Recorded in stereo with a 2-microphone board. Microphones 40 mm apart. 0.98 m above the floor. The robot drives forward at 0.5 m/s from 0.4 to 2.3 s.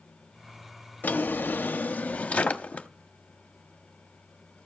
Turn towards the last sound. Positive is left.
turn(degrees=40)  # may be behind; listen again after turning